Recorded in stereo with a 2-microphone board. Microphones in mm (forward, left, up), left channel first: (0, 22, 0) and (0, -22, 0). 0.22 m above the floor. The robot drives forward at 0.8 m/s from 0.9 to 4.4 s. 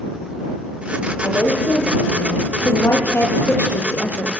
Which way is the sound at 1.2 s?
55° left (ahead or behind).